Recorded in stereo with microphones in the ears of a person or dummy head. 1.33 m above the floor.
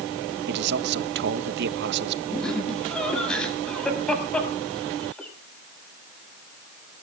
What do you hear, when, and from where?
0.5 s a man speaking: 60° right (ahead or behind), 1.1 m
2.3 s laughter: 5° left (ahead or behind), 7.5 m